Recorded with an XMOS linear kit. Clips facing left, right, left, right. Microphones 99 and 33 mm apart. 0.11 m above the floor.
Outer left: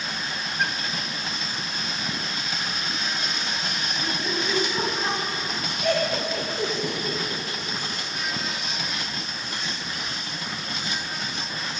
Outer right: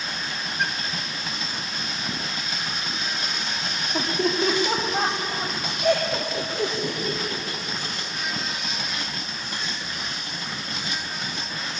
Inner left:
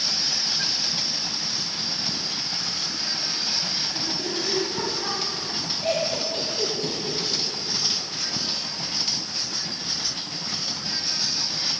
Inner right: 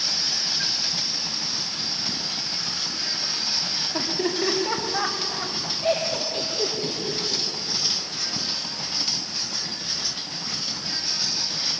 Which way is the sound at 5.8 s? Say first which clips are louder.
Outer right 2 dB, inner right 1 dB; 5° right (ahead or behind).